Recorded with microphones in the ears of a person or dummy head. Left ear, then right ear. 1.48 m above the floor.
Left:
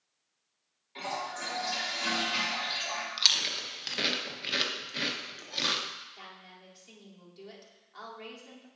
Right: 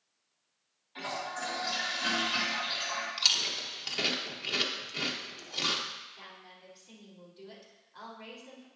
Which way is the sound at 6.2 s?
70° left (ahead or behind).